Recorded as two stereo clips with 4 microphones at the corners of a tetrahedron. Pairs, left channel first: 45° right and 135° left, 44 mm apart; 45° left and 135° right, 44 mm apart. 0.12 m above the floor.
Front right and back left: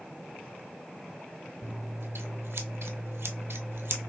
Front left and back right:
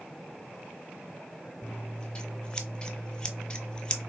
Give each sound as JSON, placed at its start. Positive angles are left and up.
{"t": 1.6, "sound": "scissors", "azimuth_deg": 115, "distance_m": 0.6}